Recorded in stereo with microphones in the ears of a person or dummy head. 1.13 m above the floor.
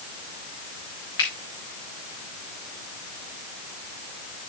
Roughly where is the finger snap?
Left.